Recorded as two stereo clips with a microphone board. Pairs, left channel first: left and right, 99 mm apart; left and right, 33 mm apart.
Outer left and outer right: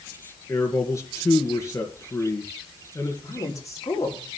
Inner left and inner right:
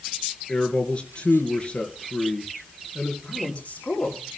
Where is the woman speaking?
35° left (ahead or behind), 6 m.